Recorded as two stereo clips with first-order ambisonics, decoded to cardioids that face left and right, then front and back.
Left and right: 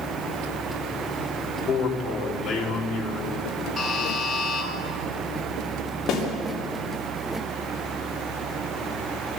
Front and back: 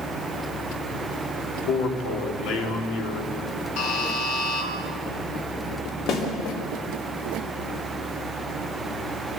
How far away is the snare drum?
About 3.5 m.